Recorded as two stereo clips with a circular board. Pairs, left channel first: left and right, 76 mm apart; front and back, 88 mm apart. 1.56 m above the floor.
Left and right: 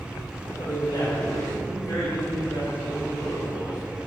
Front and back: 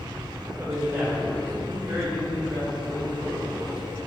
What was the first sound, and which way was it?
A man speaking, 115° left.